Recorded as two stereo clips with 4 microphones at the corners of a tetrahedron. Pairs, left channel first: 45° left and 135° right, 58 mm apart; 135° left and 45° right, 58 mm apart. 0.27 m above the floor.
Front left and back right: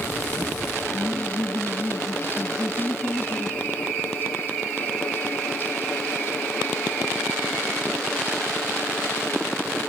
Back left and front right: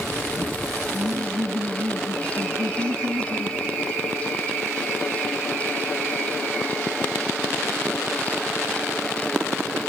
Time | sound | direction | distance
0.9 | laughter | 20° right | ?